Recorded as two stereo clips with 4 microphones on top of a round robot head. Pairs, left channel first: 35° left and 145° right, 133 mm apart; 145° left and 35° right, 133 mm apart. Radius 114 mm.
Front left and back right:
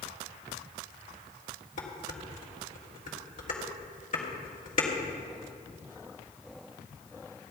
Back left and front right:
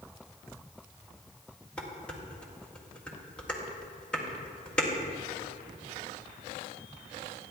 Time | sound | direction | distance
1.8 | dishes clattering | 60° left | 2 m